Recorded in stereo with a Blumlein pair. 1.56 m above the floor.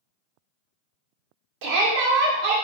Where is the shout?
40° right, 1.0 m.